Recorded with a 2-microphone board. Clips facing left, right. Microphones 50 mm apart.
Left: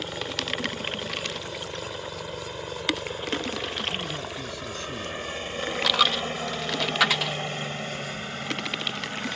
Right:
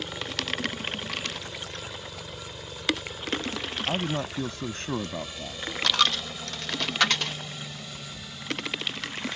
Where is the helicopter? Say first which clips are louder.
Left 2 dB; 20° left (ahead or behind); by 9.4 s 45° left (ahead or behind).